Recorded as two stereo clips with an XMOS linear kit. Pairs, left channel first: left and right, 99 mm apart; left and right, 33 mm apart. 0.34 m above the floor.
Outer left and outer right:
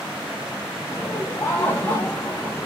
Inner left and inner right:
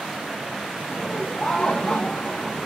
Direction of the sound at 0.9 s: 25° left (ahead or behind).